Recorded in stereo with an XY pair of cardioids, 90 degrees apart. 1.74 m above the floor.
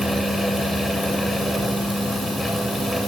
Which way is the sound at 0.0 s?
5° left.